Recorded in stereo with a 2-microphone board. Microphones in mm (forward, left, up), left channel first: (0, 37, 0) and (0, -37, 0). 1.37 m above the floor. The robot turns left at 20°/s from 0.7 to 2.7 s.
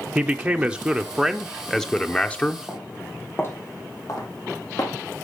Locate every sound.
0.1 s a man speaking: 165° right, 0.7 m; by 2.6 s 160° left, 0.7 m
2.7 s footsteps: 15° left (ahead or behind), 3 m; by 4.9 s 70° left (ahead or behind), 4 m